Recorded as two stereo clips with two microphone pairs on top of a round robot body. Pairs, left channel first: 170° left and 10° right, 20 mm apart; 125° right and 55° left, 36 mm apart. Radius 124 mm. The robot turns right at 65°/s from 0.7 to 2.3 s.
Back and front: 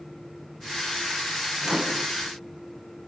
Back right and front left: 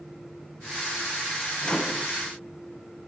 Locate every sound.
1.6 s a microwave: 70° right, 1.7 m; by 2.1 s 45° right, 1.7 m